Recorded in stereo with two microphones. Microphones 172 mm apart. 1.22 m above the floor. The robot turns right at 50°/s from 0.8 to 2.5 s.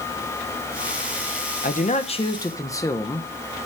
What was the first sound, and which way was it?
A man speaking, 115° left.